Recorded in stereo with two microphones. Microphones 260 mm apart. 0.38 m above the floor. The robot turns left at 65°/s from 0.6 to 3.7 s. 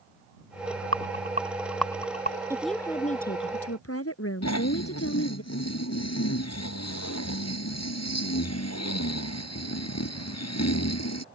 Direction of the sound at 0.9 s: 55° right (ahead or behind).